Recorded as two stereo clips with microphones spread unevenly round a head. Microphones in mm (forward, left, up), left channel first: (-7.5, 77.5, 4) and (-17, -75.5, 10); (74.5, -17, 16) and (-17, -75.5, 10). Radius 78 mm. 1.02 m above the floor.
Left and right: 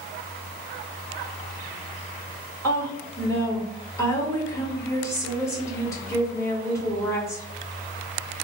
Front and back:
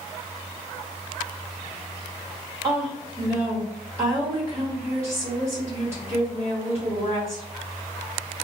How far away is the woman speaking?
About 1.2 m.